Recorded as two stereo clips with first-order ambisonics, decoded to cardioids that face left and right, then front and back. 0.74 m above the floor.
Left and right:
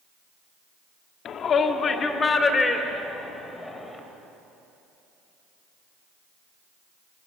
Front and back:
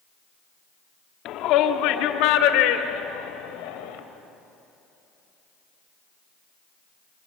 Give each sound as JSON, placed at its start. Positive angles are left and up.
{"t": 1.2, "sound": "a shout", "azimuth_deg": 40, "distance_m": 1.3}